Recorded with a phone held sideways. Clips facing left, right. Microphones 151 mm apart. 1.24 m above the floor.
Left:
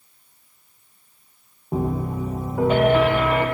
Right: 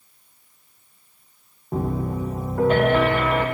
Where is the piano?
10° left (ahead or behind), 0.5 m.